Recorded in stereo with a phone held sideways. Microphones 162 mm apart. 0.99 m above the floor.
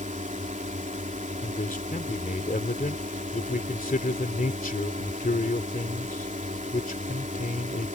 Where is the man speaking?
60° left (ahead or behind).